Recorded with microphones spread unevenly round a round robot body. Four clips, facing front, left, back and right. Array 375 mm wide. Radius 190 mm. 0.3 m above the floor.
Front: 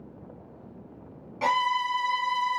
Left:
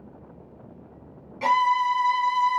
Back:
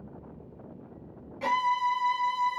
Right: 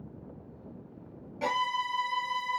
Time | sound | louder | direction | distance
1.4 | a violin | left 10 dB, front 1 dB | 35° right | 1.1 m